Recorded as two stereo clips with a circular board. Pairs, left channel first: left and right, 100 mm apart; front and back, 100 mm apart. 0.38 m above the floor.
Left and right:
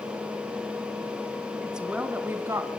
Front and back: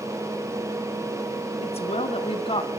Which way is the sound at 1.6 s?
5° right.